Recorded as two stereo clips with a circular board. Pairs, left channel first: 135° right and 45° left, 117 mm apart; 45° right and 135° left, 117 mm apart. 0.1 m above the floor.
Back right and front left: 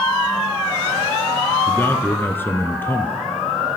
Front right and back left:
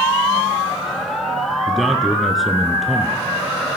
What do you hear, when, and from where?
1.7 s a man speaking: 135° right, 1.1 m